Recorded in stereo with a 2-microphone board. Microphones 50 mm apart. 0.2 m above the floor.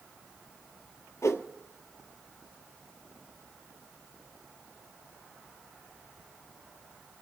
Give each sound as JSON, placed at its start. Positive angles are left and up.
{"t": 1.2, "sound": "a whoosh", "side_deg": 80, "distance_m": 1.0}